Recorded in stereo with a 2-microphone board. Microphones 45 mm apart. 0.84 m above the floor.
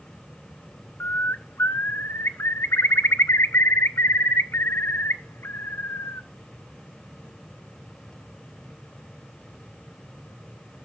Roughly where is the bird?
Left.